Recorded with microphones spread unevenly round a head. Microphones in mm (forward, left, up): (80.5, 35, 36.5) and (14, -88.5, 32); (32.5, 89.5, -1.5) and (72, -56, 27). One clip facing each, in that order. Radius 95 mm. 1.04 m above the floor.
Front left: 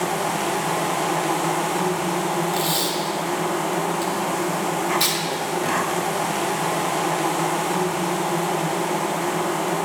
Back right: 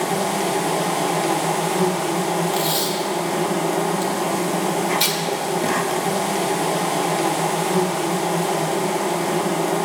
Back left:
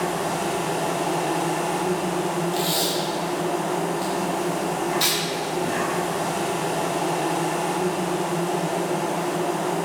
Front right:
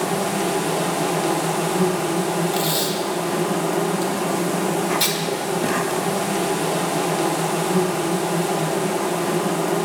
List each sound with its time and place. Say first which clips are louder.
0.0 s an insect: back right 2 dB, front right 3 dB; 65° right, 0.8 m
2.5 s tape being pulled: back right 2 dB, front right 2 dB; 50° right, 1.9 m